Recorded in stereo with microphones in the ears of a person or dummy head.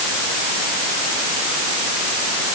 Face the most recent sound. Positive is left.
No sound to turn to.